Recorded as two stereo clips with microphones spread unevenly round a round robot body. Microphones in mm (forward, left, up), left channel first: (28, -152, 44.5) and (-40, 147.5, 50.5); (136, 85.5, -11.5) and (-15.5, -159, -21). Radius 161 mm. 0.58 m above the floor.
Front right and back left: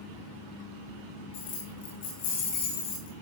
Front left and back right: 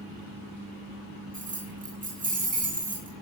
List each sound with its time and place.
1.3 s keys jangling: 60° right, 7 m